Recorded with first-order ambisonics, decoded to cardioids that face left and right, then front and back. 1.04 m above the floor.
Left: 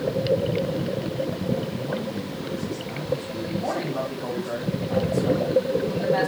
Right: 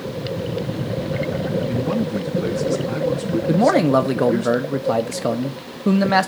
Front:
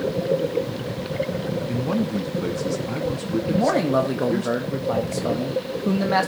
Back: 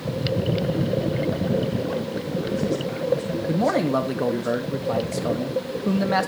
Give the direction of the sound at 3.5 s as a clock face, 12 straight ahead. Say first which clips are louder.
Right 13 dB, front 1 dB; 3 o'clock.